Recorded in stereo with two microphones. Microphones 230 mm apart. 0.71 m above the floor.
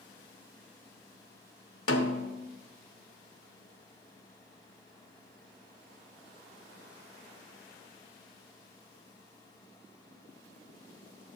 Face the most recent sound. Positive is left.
turn(degrees=75)  # may be behind; listen again after turning